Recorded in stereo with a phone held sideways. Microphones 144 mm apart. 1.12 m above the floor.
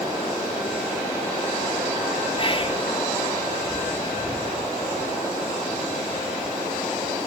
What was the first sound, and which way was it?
Whispering, 40° left (ahead or behind).